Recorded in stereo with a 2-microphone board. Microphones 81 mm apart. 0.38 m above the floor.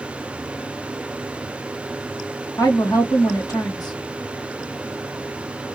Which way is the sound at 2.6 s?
55° left (ahead or behind).